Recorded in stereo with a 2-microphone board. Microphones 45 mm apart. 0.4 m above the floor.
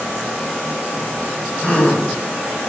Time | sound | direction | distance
1.6 | a gasp | 30° left (ahead or behind) | 0.5 m